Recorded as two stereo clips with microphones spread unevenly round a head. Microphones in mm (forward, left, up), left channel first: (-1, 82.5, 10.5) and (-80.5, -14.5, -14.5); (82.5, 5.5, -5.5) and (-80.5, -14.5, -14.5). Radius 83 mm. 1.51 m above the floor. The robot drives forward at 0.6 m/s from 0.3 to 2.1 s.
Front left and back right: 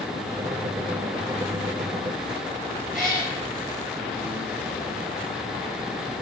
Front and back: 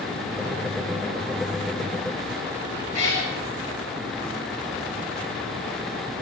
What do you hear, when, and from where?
2.9 s a cat meowing: 40° right, 5 m